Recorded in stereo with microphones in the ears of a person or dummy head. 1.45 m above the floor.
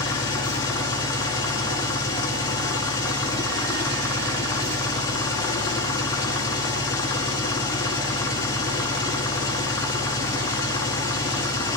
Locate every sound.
0.0 s an engine running: 20° left (ahead or behind), 2.5 m